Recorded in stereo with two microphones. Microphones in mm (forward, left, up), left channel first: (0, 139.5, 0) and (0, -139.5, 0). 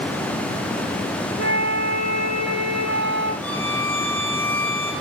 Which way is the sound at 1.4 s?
70° left (ahead or behind).